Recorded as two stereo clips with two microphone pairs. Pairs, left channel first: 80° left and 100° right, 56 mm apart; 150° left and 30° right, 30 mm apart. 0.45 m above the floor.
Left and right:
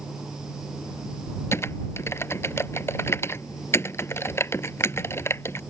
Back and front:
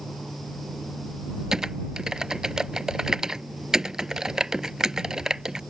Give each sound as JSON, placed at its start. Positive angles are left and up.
{"t": 1.5, "sound": "typing on a keyboard", "azimuth_deg": 35}